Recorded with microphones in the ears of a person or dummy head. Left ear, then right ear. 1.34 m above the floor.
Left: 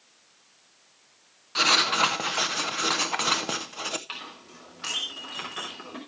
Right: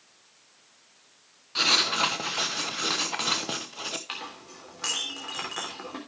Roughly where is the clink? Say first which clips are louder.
Right 1 dB; right.